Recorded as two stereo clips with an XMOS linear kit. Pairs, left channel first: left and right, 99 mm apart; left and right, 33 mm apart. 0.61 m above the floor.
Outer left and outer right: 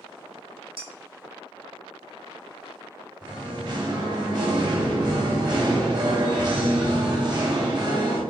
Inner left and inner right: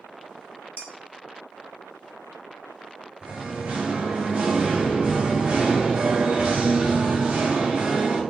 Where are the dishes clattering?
70° right (ahead or behind), 1.3 m.